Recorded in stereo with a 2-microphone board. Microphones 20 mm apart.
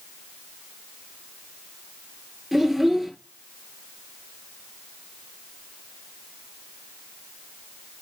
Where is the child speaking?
5° right (ahead or behind), 2 m.